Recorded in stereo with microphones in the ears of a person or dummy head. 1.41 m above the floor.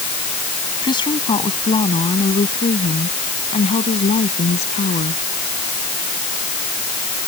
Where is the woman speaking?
25° left (ahead or behind); by 5.2 s 40° left (ahead or behind).